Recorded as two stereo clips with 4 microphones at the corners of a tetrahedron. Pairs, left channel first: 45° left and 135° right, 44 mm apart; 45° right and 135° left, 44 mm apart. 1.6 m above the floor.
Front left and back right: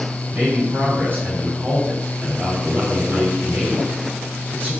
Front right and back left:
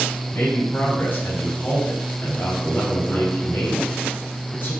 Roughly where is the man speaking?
Right.